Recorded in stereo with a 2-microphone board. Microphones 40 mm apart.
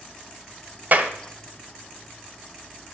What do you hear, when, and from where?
0.9 s a clap: 45° right (ahead or behind), 1.1 m